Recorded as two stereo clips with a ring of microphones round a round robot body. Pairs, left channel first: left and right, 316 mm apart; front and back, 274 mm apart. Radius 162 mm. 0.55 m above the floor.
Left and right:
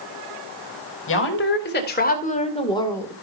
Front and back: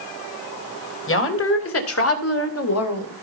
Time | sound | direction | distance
1.1 | a woman speaking | 40° left | 3 m